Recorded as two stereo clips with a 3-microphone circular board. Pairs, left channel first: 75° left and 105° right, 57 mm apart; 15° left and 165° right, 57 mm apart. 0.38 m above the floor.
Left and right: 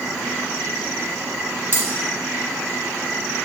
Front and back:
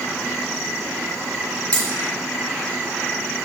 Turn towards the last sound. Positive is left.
turn(degrees=-55)